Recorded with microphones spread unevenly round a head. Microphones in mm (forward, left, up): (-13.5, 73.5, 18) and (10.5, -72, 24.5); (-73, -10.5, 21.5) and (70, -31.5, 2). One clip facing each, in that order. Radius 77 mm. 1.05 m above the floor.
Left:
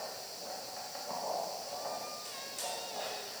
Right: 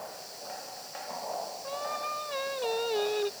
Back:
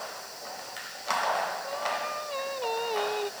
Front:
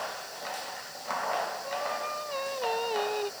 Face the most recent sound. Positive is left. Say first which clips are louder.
# right 5 dB, back 1 dB
turn(degrees=-100)